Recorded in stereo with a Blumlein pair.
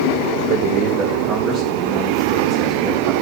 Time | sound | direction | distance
0.5 | a man speaking | 50° right | 1.1 m